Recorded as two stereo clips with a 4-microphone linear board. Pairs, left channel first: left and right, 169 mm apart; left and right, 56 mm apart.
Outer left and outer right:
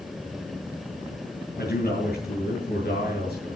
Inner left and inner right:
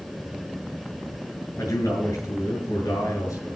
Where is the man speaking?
70° left (ahead or behind), 8 m.